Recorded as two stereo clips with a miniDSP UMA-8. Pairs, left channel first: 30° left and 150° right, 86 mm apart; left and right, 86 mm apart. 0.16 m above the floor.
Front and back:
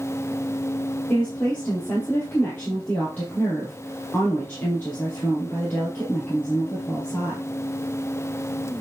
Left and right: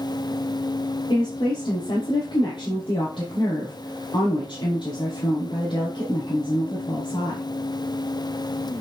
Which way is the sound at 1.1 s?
100° left.